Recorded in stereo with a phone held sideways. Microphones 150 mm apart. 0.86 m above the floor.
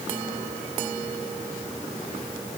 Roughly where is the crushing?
I don't hear crushing.